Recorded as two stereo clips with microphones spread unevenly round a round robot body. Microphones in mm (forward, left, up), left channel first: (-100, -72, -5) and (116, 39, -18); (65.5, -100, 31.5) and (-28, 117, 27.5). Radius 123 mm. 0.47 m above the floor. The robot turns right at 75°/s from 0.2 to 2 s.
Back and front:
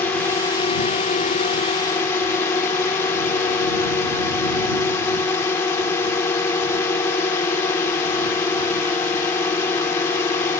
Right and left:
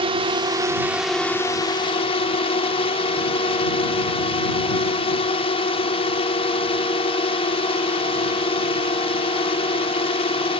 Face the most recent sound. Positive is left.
turn(degrees=-90)